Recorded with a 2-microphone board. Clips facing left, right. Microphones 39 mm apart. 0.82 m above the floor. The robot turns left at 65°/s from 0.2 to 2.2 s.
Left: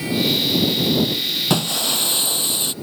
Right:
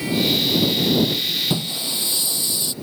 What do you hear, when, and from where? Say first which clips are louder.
1.5 s breaking glass: left 4 dB; 95° left; by 2.7 s 50° left